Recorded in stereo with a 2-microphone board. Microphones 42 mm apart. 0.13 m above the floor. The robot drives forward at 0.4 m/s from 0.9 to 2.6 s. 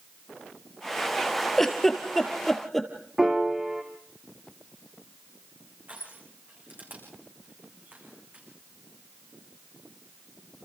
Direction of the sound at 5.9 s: 40° right (ahead or behind).